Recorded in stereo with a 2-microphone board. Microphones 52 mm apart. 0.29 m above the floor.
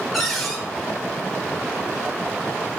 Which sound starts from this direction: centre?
A cupboard door, at 0.1 s.